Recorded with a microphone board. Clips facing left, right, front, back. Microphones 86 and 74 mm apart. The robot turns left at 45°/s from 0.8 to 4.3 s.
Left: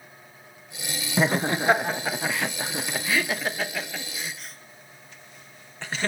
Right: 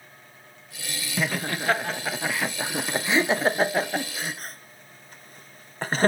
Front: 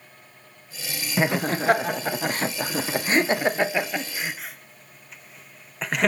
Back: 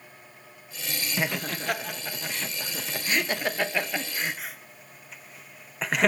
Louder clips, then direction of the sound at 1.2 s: Left 5 dB, front 8 dB; 50° left.